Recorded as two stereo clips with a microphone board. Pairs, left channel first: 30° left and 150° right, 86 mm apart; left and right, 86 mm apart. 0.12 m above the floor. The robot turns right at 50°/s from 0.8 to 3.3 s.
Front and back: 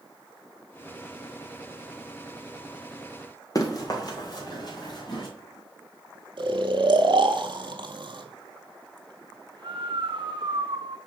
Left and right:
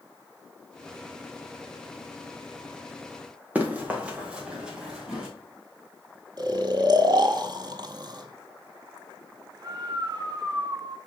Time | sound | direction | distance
3.5 | running footsteps | 20° right | 2 m
6.4 | snoring | 125° right | 1.0 m